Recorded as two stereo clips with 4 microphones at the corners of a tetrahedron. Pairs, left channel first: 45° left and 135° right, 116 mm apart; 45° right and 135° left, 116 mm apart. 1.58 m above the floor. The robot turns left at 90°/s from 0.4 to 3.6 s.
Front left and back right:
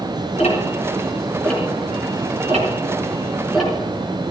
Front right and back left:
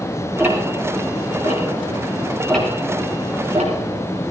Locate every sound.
0.4 s ticking: 65° left, 6 m; by 4.3 s 135° left, 6 m